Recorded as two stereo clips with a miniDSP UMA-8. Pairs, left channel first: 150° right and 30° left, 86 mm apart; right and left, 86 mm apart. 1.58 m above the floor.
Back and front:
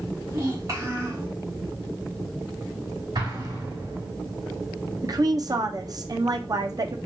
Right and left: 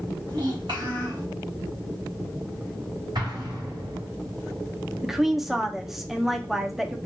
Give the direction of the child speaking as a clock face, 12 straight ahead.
10 o'clock.